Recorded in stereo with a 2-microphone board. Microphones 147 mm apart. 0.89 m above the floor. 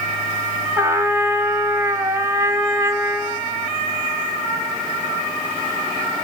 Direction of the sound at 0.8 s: 20° right (ahead or behind).